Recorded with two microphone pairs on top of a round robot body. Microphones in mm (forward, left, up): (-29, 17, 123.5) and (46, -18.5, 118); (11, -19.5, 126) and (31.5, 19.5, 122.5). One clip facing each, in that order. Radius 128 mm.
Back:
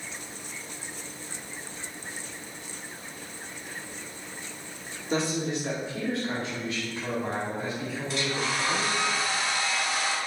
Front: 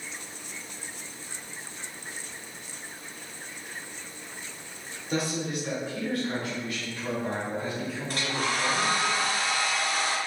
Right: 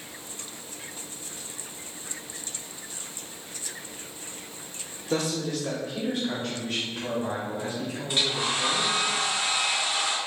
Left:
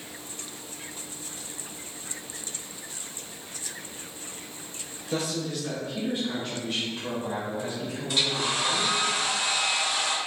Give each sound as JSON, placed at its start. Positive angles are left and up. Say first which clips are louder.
{"t": 5.1, "sound": "a man speaking", "louder": "back 2 dB, right 2 dB", "azimuth_deg": -145, "distance_m": 1.7}
{"t": 8.1, "sound": "a hair dryer", "louder": "even, even", "azimuth_deg": -55, "distance_m": 2.0}